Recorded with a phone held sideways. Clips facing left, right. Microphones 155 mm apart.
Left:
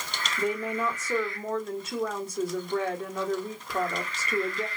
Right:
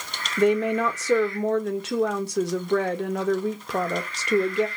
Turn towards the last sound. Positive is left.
turn(degrees=-70)  # may be behind; listen again after turning